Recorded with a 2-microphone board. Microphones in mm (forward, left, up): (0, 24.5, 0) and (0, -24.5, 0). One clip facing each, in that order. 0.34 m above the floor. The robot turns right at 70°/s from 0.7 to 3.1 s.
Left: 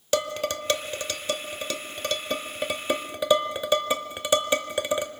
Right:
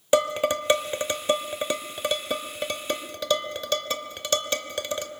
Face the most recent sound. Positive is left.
turn(degrees=15)  # may be behind; listen again after turning